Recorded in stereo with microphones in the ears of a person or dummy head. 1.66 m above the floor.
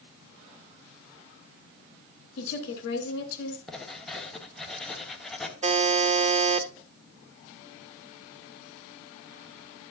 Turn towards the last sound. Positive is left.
turn(degrees=-40)  # may be behind; listen again after turning